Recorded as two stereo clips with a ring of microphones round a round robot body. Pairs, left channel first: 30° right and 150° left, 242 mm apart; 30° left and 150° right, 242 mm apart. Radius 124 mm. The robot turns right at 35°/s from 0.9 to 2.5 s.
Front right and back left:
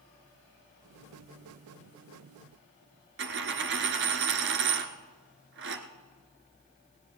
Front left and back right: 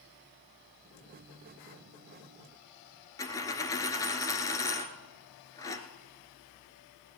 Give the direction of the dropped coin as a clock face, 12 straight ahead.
8 o'clock.